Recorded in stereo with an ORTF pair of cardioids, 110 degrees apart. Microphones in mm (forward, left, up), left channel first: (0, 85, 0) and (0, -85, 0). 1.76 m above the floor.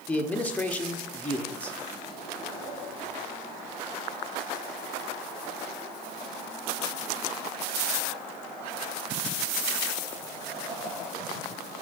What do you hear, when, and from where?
0.1 s a man speaking: 10° left, 1.3 m